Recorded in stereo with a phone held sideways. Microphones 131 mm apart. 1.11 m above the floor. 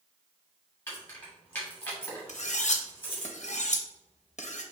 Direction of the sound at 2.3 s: 60° left (ahead or behind).